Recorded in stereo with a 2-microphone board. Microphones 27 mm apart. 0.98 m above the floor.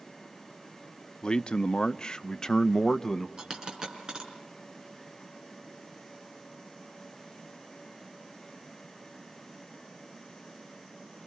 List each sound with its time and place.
1.2 s a man speaking: 35° left (ahead or behind), 0.8 m; by 3.3 s 10° left (ahead or behind), 1.1 m
3.4 s a dropped coin: 30° right (ahead or behind), 5.5 m